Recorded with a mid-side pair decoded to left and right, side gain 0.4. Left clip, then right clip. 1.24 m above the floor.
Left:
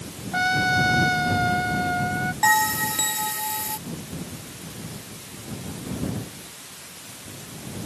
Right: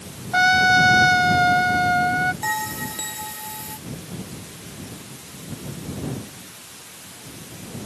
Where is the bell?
45° left.